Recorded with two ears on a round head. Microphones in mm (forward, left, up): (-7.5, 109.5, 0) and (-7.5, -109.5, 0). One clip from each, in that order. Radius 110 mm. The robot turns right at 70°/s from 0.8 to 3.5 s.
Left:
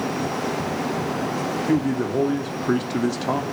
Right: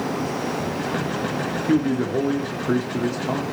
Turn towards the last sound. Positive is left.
turn(degrees=90)